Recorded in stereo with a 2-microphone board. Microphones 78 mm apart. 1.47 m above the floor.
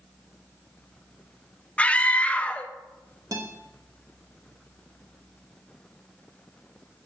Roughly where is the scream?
Centre.